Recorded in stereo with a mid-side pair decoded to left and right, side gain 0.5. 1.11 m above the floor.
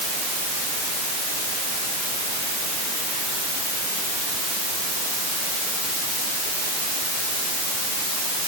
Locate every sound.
Only background noise.